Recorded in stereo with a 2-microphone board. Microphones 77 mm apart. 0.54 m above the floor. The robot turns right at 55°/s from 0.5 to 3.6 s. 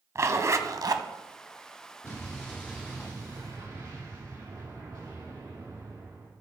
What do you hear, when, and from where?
0.1 s a zipper: 45° right (ahead or behind), 0.6 m; by 1.0 s 60° right (ahead or behind), 0.6 m
2.0 s an explosion: 150° left, 4 m; by 6.3 s 125° right, 4 m